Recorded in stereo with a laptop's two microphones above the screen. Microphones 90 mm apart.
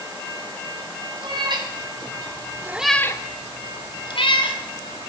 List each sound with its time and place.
1.2 s a cat meowing: 60° right (ahead or behind), 3 m; by 5.1 s 75° left (ahead or behind), 3.5 m